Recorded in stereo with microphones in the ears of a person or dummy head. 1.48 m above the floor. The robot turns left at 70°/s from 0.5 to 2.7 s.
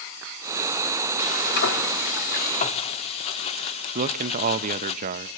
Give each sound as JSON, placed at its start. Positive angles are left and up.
{"t": 1.2, "sound": "frying", "azimuth_deg": 150, "distance_m": 1.6}
{"t": 4.0, "sound": "a man speaking", "side_deg": -40, "distance_m": 0.6}